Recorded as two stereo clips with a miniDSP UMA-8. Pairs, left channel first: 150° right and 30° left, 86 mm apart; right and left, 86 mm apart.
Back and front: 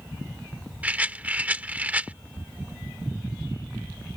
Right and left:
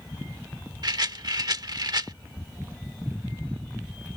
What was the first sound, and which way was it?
A rattle, 100° left.